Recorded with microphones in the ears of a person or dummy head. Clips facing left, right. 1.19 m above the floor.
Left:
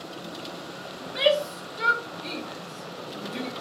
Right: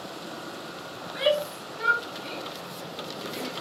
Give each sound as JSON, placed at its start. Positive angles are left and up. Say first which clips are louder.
{"t": 1.0, "sound": "a shout", "louder": "left 2 dB", "side_deg": 45, "distance_m": 2.5}